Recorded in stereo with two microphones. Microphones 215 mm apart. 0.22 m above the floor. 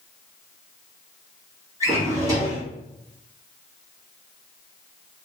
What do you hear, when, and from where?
1.8 s a drawer: 15° right (ahead or behind), 1.2 m